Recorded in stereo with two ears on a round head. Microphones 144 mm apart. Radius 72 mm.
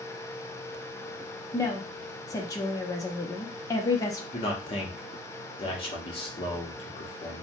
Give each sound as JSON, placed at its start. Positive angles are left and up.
{"t": 1.5, "sound": "a woman speaking", "side_deg": 25, "distance_m": 0.6}
{"t": 4.3, "sound": "a man speaking", "side_deg": 35, "distance_m": 0.9}